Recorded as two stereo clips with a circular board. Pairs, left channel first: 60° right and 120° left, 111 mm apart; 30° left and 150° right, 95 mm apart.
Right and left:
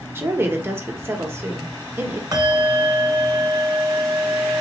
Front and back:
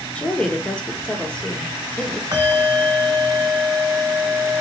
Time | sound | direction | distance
0.1 | a woman speaking | 90° left | 0.8 m
2.3 | a bell | 170° left | 1.1 m